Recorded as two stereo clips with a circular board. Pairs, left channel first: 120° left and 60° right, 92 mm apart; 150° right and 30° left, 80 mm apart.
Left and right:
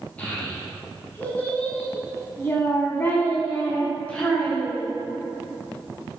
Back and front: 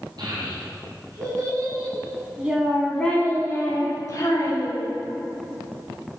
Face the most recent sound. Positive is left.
turn(degrees=-165)